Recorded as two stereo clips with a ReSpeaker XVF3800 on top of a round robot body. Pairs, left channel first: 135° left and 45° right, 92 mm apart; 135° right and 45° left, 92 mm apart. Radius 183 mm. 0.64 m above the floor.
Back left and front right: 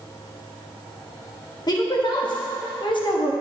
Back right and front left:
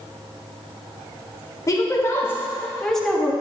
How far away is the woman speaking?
About 2 m.